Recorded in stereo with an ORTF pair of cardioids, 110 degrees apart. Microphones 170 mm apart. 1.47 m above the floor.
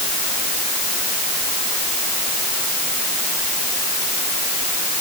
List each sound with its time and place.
Only background noise.